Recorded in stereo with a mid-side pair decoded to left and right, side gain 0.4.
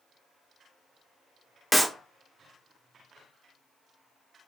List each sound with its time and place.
1.7 s a clap: 5° right, 0.5 m